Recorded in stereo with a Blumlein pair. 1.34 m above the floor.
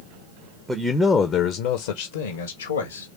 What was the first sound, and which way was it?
A man speaking, 10° right.